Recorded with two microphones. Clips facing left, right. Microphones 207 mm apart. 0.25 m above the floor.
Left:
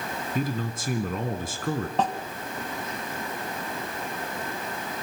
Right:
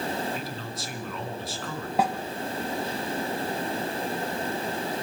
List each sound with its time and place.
0.3 s a man speaking: 50° left (ahead or behind), 2 m
2.0 s a snare drum: 10° right (ahead or behind), 1.2 m